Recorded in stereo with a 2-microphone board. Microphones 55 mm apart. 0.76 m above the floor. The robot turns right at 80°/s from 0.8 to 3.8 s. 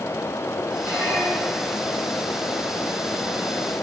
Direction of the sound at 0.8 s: 70° left.